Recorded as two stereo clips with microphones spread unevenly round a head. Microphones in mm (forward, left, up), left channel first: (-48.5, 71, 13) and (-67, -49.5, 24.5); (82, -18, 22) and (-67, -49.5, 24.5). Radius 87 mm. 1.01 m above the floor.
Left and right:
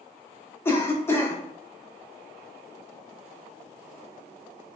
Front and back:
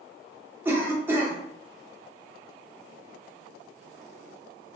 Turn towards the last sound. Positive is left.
turn(degrees=125)